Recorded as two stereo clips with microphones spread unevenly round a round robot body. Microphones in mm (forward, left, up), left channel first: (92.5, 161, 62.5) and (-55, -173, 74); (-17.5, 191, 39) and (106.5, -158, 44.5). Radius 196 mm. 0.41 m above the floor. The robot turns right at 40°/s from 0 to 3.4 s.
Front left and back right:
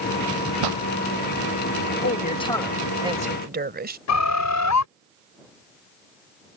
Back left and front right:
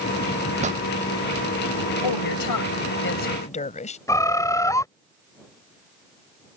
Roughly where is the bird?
Ahead left.